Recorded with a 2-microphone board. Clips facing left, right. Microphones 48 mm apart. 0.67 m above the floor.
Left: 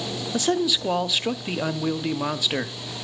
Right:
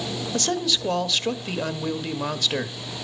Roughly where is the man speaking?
Centre.